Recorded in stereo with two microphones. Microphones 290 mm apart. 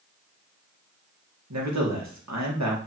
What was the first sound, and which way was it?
A man speaking, 65° right (ahead or behind).